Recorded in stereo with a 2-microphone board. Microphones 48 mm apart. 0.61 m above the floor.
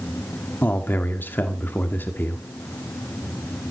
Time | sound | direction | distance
0.6 | a man speaking | 45° left (ahead or behind) | 1.7 m